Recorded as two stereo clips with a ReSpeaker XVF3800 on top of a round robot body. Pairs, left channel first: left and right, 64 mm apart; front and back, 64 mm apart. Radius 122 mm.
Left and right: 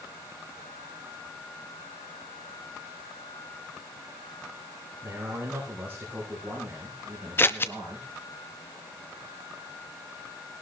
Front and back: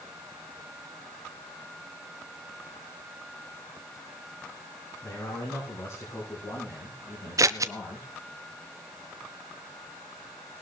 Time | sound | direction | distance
5.0 | a man speaking | 30° right | 6.5 m
7.4 | scissors | 145° left | 0.5 m